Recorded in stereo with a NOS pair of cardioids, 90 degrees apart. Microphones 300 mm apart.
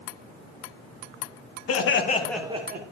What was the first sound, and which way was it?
Laughter, 60° left.